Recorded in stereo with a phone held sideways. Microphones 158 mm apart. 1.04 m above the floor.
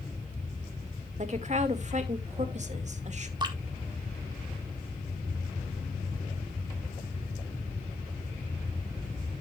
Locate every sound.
1.2 s a woman speaking: 50° right (ahead or behind), 1.9 m
3.4 s dripping: 30° right (ahead or behind), 1.7 m